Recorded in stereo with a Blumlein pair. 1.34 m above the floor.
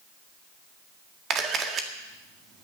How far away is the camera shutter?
About 1.8 m.